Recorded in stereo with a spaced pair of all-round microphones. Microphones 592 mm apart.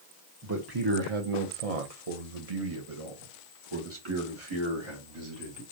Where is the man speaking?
30° right (ahead or behind), 1.1 m; by 5.6 s 45° right (ahead or behind), 3 m.